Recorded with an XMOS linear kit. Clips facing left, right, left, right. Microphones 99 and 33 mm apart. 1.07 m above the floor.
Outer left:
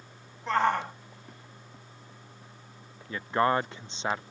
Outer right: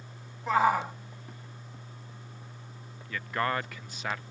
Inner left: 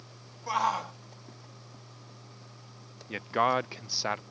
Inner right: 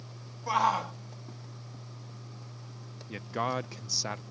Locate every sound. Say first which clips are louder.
0.5 s a shout: outer right 1 dB, inner right 2 dB; 5° right (ahead or behind)
3.1 s a man speaking: outer left 5 dB, inner left 6 dB; 25° left (ahead or behind)